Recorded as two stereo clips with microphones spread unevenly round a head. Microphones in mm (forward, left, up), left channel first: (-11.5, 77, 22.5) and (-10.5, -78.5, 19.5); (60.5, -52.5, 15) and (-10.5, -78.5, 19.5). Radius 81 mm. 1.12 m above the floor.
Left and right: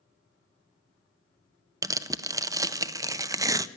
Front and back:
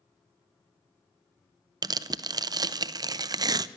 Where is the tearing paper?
150° right, 0.5 m.